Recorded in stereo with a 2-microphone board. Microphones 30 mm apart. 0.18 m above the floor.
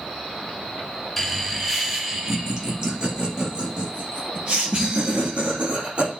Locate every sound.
1.2 s laughter: 5° left (ahead or behind), 2.5 m; by 6.1 s 45° right (ahead or behind), 5.5 m